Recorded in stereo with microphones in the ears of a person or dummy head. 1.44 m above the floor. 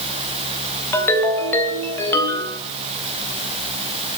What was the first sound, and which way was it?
A ringtone, 15° left (ahead or behind).